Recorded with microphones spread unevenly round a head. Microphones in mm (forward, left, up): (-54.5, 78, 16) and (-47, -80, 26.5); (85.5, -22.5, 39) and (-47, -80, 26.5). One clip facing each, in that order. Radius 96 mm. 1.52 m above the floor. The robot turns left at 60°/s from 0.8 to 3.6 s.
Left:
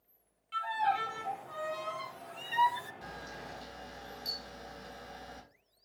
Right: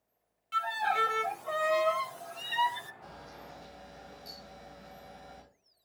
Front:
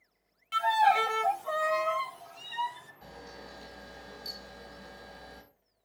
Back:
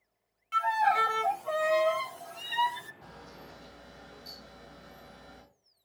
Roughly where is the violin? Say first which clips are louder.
Even, front 2 dB; ahead right.